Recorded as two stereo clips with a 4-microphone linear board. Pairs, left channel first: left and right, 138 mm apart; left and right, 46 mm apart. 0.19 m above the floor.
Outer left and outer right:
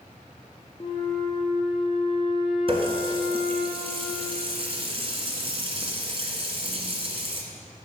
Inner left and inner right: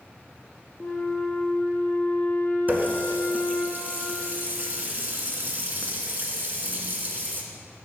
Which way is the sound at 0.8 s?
40° left (ahead or behind).